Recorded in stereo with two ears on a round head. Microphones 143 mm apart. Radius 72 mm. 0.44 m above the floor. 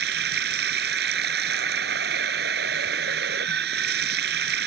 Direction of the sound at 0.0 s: 65° right (ahead or behind).